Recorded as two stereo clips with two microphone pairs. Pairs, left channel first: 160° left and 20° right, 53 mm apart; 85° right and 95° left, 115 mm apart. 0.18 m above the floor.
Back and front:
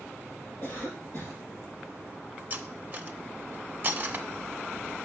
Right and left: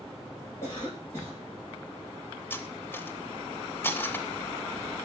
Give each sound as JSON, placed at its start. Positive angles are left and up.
{"t": 0.6, "sound": "a cough", "azimuth_deg": -150, "distance_m": 5.0}
{"t": 2.5, "sound": "cutlery clinking", "azimuth_deg": -30, "distance_m": 0.7}